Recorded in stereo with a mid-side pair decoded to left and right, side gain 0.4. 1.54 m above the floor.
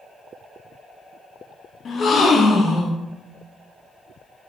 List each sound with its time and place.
1.9 s a gasp: 55° left, 0.7 m